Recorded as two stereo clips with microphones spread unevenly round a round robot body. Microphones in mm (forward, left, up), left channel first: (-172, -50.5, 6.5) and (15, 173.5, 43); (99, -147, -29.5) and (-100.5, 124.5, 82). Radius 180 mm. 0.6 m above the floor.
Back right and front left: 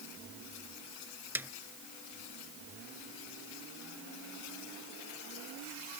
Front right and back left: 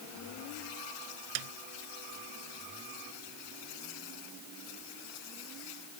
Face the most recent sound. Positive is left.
turn(degrees=135)